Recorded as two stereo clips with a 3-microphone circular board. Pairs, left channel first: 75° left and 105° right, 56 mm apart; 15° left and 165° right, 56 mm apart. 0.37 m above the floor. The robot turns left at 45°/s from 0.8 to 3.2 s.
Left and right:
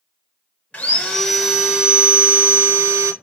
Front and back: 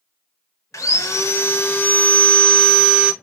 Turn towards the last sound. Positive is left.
turn(degrees=-95)